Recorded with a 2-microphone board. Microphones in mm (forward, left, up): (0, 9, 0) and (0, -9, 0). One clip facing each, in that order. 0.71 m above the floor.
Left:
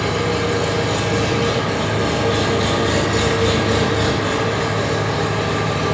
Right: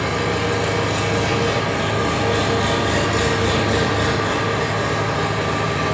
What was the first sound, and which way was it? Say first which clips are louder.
An engine running: left 1 dB; 5° left (ahead or behind).